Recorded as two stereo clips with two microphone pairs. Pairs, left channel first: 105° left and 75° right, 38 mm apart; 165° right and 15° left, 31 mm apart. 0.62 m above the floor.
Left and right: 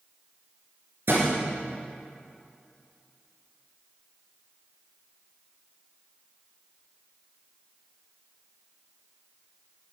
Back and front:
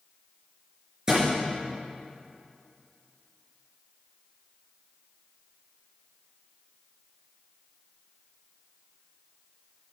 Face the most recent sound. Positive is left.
turn(degrees=-55)